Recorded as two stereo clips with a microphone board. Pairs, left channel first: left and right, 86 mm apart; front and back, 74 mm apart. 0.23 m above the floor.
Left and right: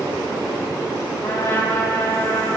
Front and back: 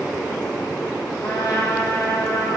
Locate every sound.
1.2 s a trumpet: 25° left, 6.5 m